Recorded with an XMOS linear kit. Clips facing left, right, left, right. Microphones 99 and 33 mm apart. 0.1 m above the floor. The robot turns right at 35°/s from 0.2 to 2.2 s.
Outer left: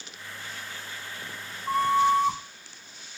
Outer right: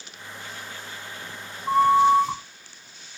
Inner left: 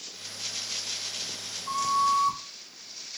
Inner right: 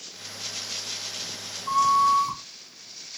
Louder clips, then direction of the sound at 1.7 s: Outer right 5 dB, inner right 5 dB; 25° right (ahead or behind).